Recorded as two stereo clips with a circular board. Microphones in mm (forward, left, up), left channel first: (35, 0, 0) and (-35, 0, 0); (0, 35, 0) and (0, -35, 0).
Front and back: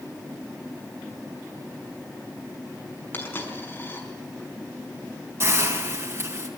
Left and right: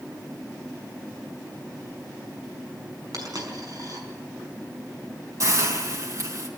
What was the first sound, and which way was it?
A dropped coin, 60° right.